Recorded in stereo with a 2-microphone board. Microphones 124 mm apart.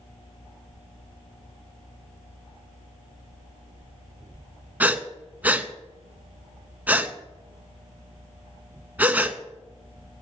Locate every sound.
4.8 s breathing: 15° right (ahead or behind), 0.6 m